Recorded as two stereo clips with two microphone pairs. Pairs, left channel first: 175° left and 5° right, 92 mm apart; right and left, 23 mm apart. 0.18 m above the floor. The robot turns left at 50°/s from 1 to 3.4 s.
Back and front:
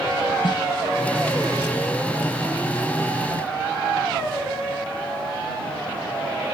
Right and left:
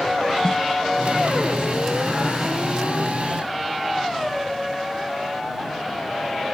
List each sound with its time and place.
0.4 s a snare drum: 150° right